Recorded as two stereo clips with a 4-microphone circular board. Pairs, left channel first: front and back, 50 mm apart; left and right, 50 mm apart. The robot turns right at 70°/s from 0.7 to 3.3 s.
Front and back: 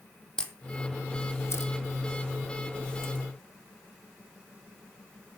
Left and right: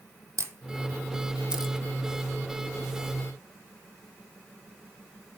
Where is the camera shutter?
75° right, 2.5 m; by 1.7 s 5° right, 2.5 m.